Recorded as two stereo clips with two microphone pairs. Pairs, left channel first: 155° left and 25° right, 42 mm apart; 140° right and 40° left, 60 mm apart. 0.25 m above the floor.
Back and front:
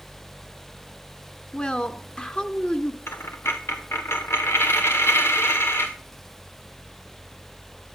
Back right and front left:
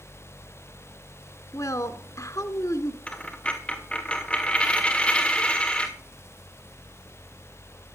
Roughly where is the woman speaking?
Behind right.